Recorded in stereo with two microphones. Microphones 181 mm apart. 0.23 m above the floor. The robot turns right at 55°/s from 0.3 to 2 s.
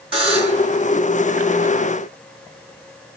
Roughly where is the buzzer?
Right.